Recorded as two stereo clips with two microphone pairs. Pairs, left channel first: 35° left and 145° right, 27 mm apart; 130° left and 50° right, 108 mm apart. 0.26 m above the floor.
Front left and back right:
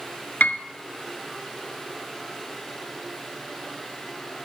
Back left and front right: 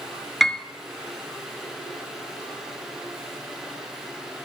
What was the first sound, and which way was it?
A piano, 40° left.